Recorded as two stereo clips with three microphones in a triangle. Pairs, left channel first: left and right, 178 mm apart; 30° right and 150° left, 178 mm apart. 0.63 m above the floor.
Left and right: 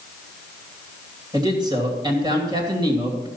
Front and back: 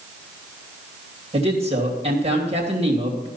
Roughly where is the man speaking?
Behind right.